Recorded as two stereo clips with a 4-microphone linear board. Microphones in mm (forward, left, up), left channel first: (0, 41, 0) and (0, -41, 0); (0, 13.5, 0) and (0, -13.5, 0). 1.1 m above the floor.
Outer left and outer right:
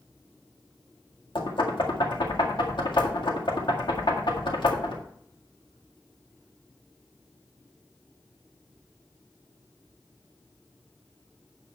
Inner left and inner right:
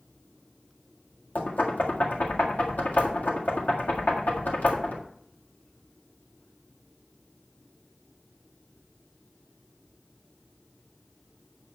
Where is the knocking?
80° left, 1.9 m.